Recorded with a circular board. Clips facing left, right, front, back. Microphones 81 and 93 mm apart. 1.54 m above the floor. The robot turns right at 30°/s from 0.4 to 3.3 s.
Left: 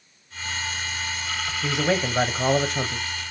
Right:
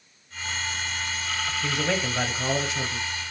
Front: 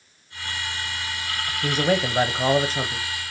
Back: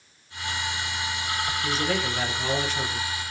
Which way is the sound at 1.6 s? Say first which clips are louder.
Left 5 dB, front 7 dB; 15° left.